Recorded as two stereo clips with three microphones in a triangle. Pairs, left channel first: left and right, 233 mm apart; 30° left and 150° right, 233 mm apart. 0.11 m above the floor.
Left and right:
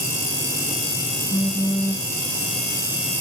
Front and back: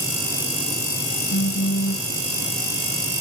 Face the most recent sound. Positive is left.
turn(degrees=15)